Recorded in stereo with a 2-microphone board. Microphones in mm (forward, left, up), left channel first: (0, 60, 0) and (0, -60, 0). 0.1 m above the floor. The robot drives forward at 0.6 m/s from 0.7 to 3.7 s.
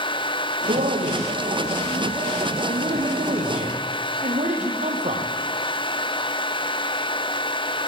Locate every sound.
0.7 s a man speaking: 70° right (ahead or behind), 4 m; by 5.3 s 60° right (ahead or behind), 4 m